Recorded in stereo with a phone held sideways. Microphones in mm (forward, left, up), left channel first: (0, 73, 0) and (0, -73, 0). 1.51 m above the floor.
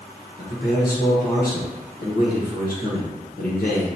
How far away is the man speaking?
About 1.2 m.